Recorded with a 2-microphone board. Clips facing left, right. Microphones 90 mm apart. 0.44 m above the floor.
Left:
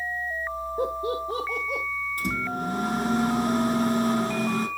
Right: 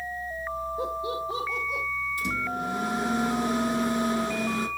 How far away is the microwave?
About 4 m.